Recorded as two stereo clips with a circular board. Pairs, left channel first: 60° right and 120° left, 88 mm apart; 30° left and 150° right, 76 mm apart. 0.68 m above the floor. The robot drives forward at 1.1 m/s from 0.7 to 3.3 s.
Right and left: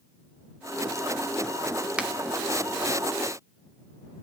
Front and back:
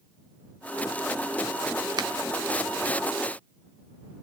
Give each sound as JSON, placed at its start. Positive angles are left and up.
{"t": 2.0, "sound": "a finger snap", "azimuth_deg": -165, "distance_m": 1.3}